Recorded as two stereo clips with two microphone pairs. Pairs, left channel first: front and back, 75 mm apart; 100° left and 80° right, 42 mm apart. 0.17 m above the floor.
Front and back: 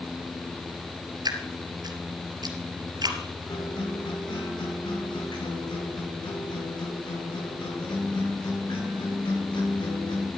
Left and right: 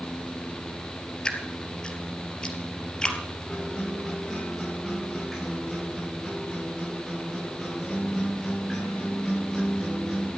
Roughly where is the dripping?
Behind.